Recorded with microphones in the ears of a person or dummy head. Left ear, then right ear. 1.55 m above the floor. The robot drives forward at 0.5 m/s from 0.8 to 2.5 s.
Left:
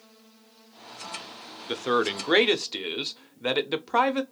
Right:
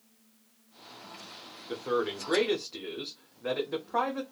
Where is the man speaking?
60° left (ahead or behind), 0.6 m; by 4.2 s 65° left (ahead or behind), 0.5 m.